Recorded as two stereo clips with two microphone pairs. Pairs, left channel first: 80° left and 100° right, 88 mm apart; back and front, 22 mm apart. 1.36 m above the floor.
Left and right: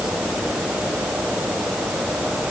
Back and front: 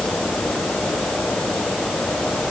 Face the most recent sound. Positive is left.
No sound to turn to.